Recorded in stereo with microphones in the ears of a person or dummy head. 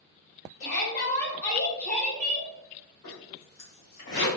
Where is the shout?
65° left (ahead or behind), 0.9 m; by 2.5 s 10° right (ahead or behind), 1.1 m.